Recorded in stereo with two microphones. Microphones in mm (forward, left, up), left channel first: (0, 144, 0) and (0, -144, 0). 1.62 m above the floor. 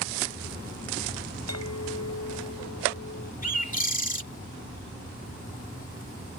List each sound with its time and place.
1.5 s a clink: 60° left (ahead or behind)
3.4 s a bird: 30° left (ahead or behind)